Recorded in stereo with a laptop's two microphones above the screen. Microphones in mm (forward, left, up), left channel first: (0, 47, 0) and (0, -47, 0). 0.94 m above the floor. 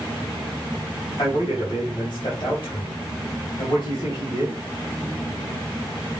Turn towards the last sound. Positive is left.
turn(degrees=60)  # may be behind; listen again after turning